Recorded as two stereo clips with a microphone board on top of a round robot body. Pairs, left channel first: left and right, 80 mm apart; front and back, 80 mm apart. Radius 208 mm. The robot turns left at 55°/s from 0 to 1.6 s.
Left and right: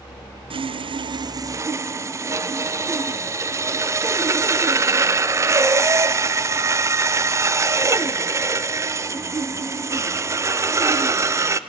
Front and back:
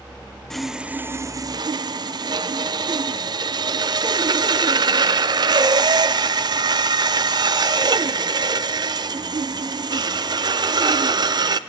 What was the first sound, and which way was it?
Sawing, 85° right.